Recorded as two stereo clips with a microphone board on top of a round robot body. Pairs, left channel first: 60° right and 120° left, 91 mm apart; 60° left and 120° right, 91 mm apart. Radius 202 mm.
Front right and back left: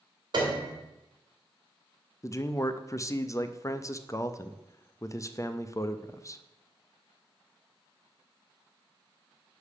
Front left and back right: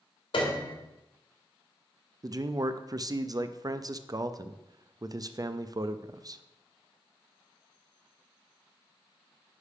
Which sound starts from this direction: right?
A man speaking, at 2.2 s.